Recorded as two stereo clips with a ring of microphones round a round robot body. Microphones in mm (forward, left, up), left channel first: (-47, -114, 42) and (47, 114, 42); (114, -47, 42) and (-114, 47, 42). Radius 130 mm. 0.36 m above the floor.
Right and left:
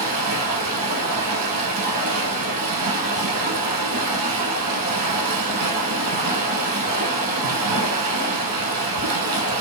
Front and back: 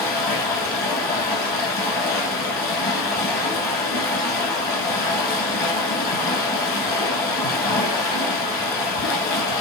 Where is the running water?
35° left, 1.2 m.